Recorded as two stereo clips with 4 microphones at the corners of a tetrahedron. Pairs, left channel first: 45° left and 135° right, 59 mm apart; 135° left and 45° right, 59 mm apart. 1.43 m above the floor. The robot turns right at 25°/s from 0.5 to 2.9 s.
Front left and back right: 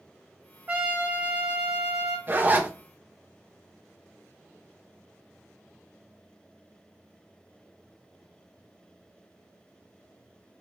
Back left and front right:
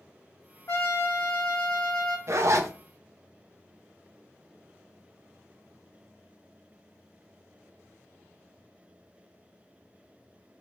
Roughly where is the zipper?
Right.